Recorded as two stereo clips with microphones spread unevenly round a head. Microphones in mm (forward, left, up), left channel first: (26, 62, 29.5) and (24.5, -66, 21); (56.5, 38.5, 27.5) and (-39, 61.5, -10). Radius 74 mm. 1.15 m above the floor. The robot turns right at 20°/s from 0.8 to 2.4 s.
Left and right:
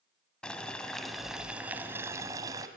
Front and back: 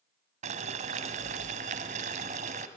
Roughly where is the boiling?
Behind.